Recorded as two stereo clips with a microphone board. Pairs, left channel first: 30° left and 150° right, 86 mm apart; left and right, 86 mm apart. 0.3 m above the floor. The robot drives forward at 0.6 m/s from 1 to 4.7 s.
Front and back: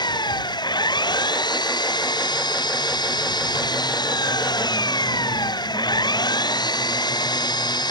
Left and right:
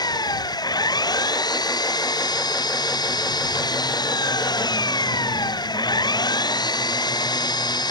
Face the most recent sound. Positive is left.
turn(degrees=60)